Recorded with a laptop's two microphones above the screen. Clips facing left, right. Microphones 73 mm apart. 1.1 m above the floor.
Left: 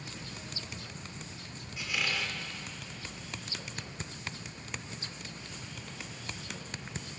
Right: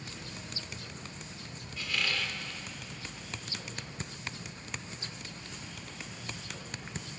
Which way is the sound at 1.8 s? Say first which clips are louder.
Even; 15° left (ahead or behind).